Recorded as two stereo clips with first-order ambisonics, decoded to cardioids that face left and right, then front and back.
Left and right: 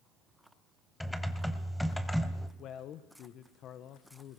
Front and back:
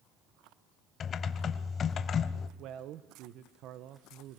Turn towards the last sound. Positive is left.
turn(degrees=140)